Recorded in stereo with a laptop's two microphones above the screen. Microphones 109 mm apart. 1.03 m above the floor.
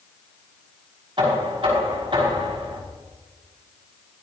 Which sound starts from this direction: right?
Knocking, at 1.2 s.